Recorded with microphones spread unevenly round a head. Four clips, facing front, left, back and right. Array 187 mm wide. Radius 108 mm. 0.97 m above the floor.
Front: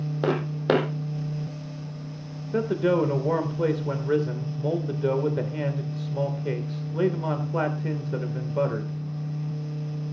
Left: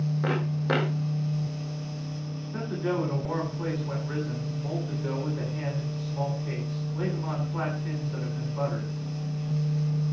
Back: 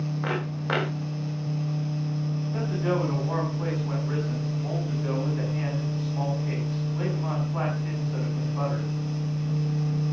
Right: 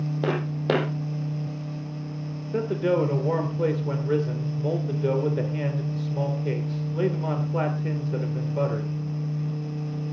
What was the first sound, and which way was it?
Footsteps, 10° right.